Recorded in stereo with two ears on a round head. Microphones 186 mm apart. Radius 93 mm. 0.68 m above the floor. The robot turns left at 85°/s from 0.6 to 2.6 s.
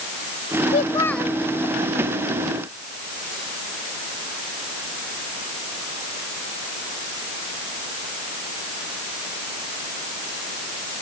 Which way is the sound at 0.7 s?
40° left.